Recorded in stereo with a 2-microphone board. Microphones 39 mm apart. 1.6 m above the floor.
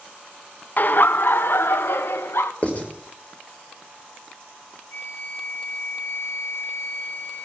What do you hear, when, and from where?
0.8 s laughter: 45° left (ahead or behind), 1.0 m; by 2.5 s 75° left (ahead or behind), 2.5 m
2.6 s writing: 35° left (ahead or behind), 6 m
4.9 s a flute: 60° left (ahead or behind), 3.5 m